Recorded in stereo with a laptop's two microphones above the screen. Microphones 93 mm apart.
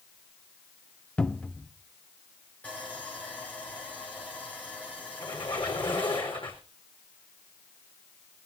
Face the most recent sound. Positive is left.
turn(degrees=65)  # may be behind; listen again after turning